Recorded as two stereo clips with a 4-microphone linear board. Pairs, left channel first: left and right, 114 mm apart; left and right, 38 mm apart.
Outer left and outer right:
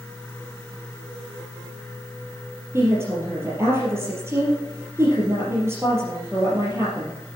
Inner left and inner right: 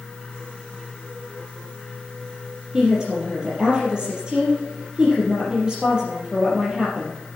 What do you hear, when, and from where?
2.7 s a woman speaking: 25° right (ahead or behind), 3.5 m